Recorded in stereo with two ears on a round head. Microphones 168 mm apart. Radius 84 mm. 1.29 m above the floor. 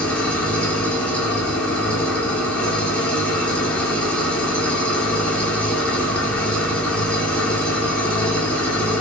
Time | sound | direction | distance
0.0 | an engine running | 5° left (ahead or behind) | 1.0 m